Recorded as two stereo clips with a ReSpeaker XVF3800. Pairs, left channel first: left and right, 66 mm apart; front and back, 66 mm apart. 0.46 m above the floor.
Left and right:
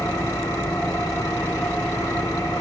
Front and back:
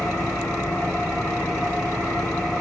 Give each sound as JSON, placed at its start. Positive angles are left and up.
{"t": 0.0, "sound": "an engine running", "azimuth_deg": 85, "distance_m": 4.5}